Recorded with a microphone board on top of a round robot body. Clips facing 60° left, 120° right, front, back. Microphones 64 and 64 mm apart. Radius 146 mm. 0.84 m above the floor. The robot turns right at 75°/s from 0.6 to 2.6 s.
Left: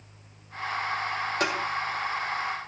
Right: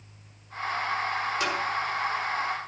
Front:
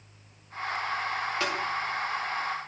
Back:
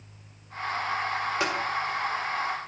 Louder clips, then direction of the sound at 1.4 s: Left 3 dB, back 2 dB; 105° left.